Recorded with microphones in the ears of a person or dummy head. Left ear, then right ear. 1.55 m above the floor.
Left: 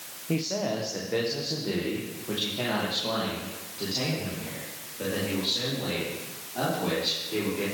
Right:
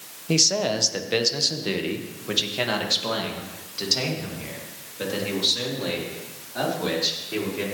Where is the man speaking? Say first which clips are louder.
Right 8 dB; 85° right, 0.9 m; by 7.7 s 45° right (ahead or behind), 4.5 m.